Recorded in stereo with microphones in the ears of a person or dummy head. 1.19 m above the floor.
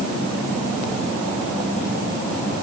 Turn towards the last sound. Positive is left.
No sound to turn to.